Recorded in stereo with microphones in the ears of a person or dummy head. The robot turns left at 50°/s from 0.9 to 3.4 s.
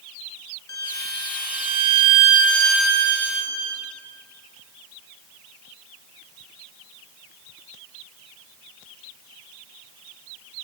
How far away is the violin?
About 0.8 m.